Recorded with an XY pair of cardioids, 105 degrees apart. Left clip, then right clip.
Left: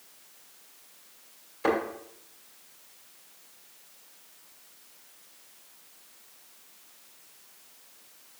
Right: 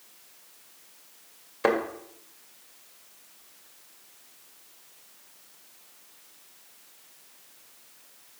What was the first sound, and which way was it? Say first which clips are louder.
A thud: right 2 dB; 60° right.